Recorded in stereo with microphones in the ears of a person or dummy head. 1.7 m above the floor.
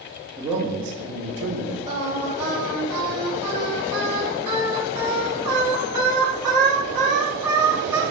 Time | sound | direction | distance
0.4 | a man speaking | 10° right (ahead or behind) | 0.8 m
1.9 | singing | 20° right (ahead or behind) | 1.3 m